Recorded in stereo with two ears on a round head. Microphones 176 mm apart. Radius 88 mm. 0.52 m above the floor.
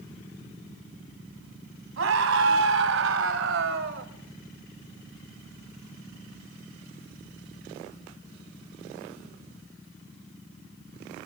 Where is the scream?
75° right (ahead or behind), 4.5 m; by 4.1 s 65° right (ahead or behind), 2.5 m.